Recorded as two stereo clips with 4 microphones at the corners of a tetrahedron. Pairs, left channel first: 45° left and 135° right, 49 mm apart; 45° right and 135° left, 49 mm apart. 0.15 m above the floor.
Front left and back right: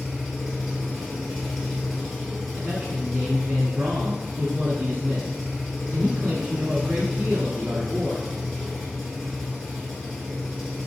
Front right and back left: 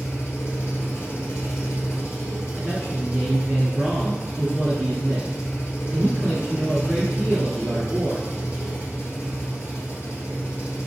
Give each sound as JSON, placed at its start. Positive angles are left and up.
{"t": 0.0, "sound": "an engine running", "azimuth_deg": -40, "distance_m": 1.5}
{"t": 2.6, "sound": "a man speaking", "azimuth_deg": -165, "distance_m": 1.6}